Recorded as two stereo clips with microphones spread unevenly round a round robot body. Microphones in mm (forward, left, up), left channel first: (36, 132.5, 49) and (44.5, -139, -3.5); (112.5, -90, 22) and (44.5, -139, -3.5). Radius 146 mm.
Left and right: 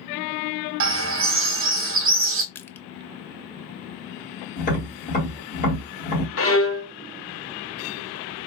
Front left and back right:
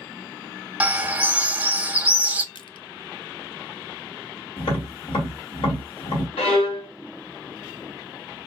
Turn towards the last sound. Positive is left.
turn(degrees=45)